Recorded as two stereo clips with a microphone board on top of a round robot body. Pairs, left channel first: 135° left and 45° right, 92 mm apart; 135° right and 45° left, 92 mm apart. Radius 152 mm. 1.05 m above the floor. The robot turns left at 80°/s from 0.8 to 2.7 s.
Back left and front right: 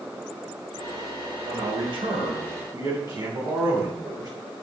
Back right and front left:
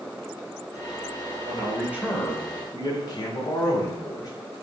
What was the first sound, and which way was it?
A man speaking, 10° left.